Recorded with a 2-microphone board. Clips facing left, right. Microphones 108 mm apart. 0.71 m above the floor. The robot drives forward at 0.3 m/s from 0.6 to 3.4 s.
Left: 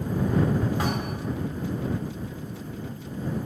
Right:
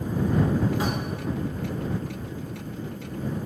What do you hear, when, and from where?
0.8 s a thud: 60° left (ahead or behind), 1.1 m; by 1.5 s 50° left (ahead or behind), 1.2 m